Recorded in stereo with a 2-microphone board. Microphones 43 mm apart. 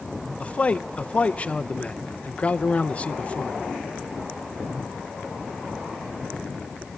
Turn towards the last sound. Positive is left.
turn(degrees=30)  # may be behind; listen again after turning